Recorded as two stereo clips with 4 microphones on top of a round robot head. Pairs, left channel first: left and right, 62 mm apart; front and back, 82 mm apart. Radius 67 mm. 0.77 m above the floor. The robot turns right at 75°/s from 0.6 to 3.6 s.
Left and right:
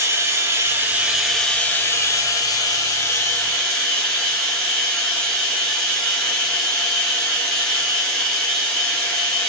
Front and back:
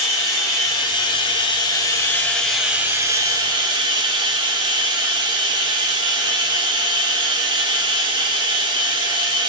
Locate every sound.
0.0 s running water: 55° right, 1.6 m; by 9.5 s 170° left, 1.6 m